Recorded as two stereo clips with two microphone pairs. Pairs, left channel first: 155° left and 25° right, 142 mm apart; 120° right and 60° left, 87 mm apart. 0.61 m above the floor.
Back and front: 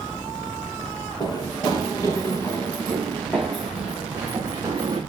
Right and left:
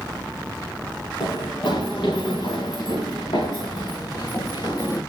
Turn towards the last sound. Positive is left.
turn(degrees=-85)